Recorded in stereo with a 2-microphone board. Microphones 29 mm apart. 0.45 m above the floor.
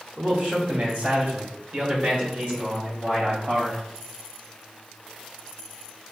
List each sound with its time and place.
0.2 s a man speaking: 40° right (ahead or behind), 1.3 m; by 3.8 s 45° right (ahead or behind), 2 m